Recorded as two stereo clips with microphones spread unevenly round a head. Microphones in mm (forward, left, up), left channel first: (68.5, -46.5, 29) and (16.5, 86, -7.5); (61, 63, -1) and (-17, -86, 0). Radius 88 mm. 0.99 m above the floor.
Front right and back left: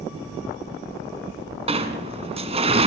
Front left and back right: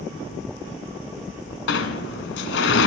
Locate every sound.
1.7 s a sliding door: 60° left, 2 m